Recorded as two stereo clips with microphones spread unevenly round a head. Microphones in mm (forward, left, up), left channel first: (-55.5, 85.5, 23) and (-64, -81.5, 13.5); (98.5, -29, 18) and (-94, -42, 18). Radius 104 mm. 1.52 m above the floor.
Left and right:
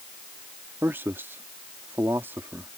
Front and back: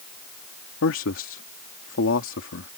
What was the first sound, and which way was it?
A man speaking, 10° right.